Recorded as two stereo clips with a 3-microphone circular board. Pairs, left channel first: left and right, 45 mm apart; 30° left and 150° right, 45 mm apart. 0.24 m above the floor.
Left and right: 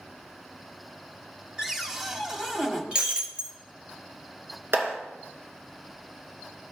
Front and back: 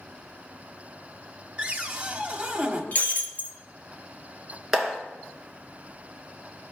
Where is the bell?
I don't hear a bell.